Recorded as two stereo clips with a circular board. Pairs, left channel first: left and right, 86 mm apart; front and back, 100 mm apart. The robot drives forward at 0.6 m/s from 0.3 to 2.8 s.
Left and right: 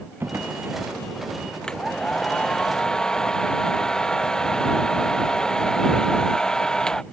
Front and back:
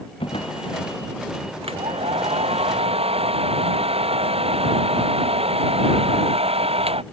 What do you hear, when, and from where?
0.2 s a drawer: 25° right
1.6 s a hair dryer: 170° left; by 7.0 s 175° left